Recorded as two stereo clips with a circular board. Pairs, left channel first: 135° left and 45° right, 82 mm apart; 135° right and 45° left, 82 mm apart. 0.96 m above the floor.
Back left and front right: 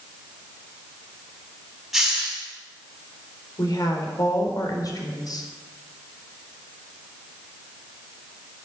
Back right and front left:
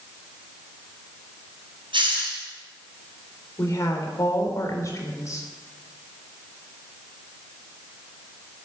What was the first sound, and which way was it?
A hiss, 45° left.